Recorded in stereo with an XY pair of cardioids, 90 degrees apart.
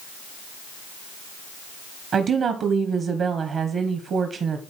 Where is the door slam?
I don't hear a door slam.